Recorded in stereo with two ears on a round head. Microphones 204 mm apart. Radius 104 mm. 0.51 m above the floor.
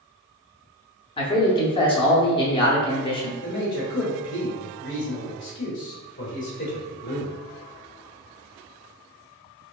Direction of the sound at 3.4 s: 60° left (ahead or behind).